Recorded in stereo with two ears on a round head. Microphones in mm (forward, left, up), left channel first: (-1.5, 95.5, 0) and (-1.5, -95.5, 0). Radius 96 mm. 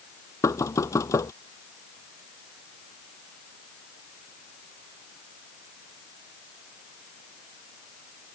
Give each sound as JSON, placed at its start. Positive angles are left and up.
{"t": 0.4, "sound": "knocking", "side_deg": 15}